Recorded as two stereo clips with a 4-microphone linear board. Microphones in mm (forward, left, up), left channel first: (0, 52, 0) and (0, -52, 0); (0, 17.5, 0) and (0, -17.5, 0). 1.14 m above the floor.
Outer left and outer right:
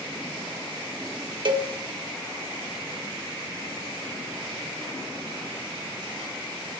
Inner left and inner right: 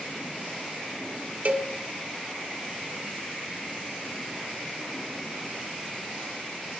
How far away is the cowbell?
About 1.0 m.